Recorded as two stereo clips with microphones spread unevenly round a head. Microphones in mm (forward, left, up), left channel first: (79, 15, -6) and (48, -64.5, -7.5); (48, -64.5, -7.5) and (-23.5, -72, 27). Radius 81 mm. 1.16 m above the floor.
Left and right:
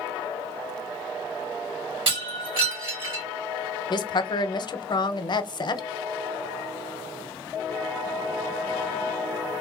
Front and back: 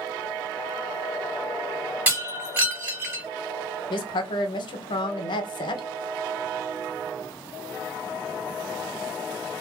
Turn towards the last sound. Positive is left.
turn(degrees=30)